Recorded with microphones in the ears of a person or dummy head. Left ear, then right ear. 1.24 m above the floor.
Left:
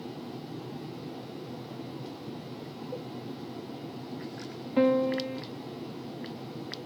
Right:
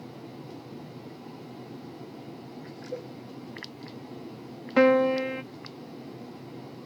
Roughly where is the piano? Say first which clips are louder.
Right 5 dB; right.